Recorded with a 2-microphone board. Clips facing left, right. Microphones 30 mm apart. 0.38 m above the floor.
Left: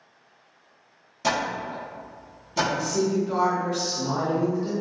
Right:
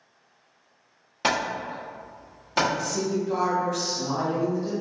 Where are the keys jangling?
No keys jangling in this recording.